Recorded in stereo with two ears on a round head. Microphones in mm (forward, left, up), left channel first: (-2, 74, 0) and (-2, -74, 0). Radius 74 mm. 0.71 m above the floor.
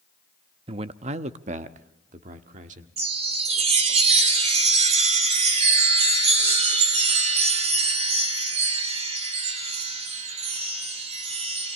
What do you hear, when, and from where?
0.7 s a man speaking: 35° right (ahead or behind), 0.5 m; by 2.9 s 45° right (ahead or behind), 1.5 m
3.0 s a chime: 40° right (ahead or behind), 3 m